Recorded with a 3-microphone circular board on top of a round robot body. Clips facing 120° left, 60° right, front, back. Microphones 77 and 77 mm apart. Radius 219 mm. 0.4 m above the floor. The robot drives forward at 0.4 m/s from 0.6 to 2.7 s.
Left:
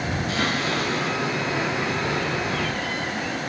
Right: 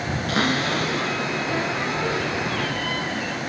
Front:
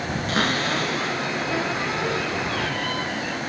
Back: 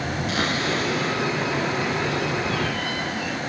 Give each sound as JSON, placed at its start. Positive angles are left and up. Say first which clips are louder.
{"t": 0.3, "sound": "a cupboard door", "louder": "right 4 dB, front 2 dB", "azimuth_deg": -40, "distance_m": 5.0}